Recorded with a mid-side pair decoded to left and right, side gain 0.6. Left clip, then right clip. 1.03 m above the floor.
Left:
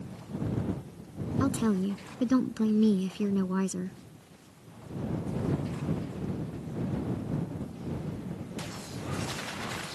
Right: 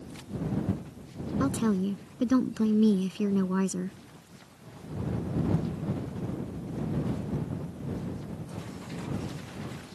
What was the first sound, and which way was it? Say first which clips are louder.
A woman speaking: even; straight ahead.